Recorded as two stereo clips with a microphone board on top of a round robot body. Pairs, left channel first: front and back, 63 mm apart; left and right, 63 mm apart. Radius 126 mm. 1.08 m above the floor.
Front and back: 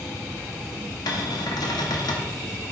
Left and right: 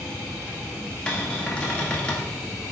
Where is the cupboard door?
15° left, 1.2 m.